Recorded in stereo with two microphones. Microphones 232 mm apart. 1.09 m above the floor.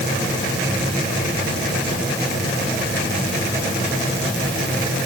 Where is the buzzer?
I don't hear a buzzer.